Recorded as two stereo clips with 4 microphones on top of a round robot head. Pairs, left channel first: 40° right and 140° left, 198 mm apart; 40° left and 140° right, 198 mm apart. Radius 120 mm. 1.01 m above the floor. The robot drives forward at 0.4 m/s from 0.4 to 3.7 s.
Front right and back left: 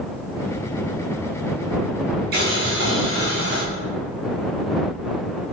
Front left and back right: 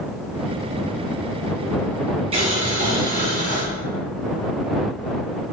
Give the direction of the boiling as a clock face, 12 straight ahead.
7 o'clock.